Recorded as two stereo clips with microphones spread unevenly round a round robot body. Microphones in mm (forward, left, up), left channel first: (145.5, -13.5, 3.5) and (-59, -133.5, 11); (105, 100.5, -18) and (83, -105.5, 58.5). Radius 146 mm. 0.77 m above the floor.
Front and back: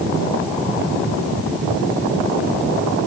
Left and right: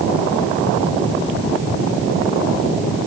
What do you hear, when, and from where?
Only background noise.